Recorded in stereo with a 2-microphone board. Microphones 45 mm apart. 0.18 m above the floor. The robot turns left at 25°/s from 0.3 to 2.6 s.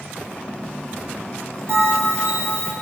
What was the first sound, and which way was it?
A bell, 60° right (ahead or behind).